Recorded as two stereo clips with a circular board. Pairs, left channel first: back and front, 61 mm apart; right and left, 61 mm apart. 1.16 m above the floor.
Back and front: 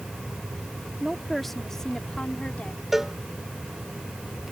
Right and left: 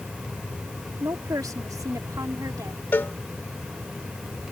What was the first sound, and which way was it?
A woman speaking, 85° left.